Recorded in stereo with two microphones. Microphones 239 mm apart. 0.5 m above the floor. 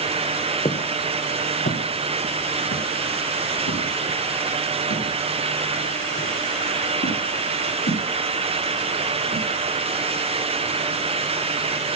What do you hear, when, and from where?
0.7 s footsteps: 25° left (ahead or behind), 2.5 m; by 9.4 s 75° left (ahead or behind), 10.5 m